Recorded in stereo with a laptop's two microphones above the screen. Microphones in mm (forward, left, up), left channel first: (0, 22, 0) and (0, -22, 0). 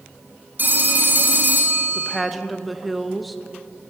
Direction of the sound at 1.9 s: Centre (ahead or behind).